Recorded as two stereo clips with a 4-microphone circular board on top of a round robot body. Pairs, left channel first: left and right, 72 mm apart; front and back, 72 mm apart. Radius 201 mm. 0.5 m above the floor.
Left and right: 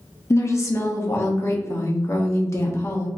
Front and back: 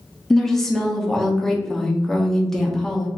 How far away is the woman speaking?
About 1.2 m.